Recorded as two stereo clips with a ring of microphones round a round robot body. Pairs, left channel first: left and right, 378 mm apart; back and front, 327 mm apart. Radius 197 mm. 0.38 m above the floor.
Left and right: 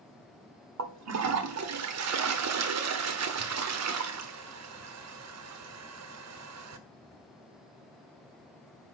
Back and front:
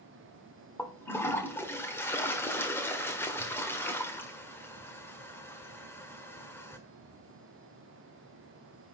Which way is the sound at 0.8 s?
100° right.